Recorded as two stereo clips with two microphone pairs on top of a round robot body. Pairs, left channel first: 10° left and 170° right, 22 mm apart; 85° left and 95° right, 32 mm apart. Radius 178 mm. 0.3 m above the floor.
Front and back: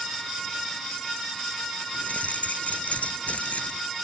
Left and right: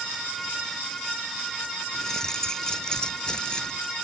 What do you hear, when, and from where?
1.9 s keys jangling: 15° left; by 3.8 s 25° left